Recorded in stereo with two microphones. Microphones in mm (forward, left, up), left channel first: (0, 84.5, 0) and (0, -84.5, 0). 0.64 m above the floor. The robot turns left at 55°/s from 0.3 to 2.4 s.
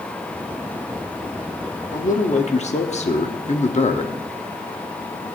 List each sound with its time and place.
1.9 s a man speaking: 50° left (ahead or behind), 1.1 m; by 4.1 s 40° left (ahead or behind), 1.1 m